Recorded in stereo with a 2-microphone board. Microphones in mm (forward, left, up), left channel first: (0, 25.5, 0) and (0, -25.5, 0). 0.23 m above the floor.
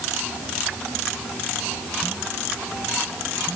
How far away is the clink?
No clink in this recording.